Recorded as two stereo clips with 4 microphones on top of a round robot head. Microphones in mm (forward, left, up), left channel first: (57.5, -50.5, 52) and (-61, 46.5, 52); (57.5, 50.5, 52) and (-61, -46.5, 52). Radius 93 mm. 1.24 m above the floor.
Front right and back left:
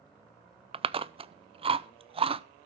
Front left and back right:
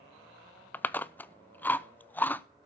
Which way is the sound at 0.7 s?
115° left.